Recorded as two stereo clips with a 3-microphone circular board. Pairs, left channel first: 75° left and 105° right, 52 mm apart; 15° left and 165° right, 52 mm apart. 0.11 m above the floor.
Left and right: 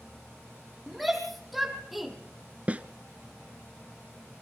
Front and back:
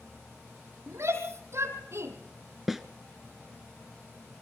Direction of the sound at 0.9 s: 165° left.